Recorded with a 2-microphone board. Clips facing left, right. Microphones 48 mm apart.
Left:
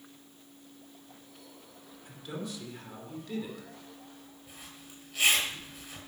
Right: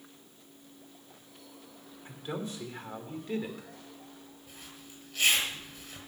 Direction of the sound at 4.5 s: 15° left (ahead or behind).